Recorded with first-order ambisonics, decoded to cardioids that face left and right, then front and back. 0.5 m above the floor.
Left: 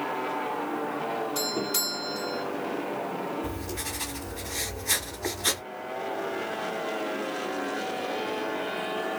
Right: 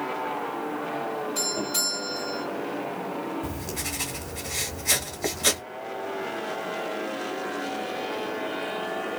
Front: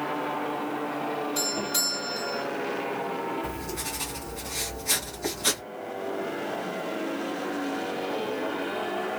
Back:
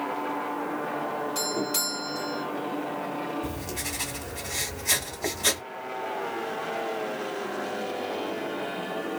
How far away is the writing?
About 1.7 m.